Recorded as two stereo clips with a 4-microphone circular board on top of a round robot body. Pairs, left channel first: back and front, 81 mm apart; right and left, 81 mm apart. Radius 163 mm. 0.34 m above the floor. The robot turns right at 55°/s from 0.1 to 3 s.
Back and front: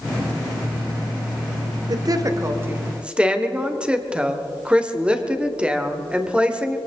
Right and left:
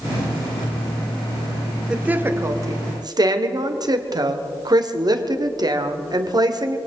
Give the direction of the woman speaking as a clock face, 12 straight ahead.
12 o'clock.